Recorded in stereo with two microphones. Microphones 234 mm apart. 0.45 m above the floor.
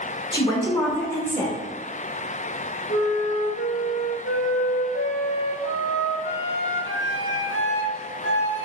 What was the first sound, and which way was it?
A woman speaking, 20° left (ahead or behind).